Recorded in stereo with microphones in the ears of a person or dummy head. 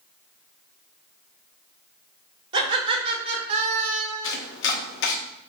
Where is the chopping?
65° left (ahead or behind), 0.8 m.